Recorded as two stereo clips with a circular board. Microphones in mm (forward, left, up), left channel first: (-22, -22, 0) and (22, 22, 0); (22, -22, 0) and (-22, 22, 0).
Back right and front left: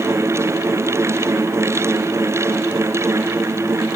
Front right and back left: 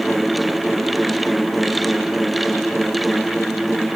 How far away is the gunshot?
No gunshot in this recording.